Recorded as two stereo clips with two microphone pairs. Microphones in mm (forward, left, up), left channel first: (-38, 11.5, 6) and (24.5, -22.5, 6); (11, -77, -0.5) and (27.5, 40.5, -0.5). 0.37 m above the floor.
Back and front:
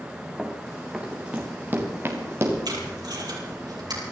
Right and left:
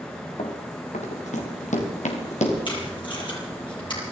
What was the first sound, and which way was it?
Running footsteps, 120° right.